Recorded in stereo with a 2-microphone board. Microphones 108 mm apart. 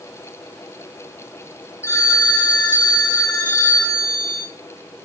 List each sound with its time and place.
1.8 s a phone ringing: 25° left (ahead or behind), 2.5 m